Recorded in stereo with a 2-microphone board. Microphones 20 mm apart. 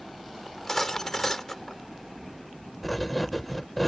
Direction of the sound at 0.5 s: 20° left (ahead or behind).